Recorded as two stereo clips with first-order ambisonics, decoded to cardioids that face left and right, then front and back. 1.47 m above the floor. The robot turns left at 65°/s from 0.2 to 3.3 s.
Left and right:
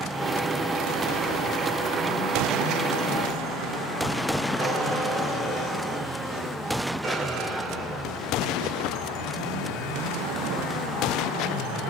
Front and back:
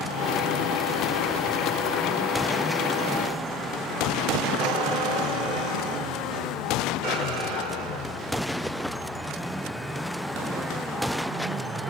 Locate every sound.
4.6 s a squeak: 165° right, 7 m